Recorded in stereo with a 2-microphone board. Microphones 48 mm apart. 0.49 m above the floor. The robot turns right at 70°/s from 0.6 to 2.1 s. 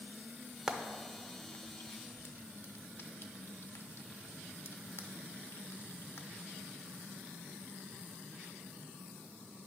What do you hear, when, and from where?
0.7 s frying: 10° right (ahead or behind), 0.6 m; by 6.3 s 65° left (ahead or behind), 0.6 m